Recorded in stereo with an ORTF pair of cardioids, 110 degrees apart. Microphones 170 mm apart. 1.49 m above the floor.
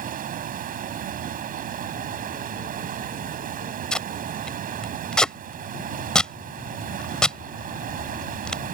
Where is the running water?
55° right.